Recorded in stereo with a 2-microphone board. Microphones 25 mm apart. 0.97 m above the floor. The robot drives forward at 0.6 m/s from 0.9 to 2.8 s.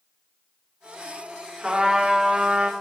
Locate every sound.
1.6 s a trumpet: 30° right (ahead or behind), 1.9 m; by 2.7 s 40° right (ahead or behind), 1.4 m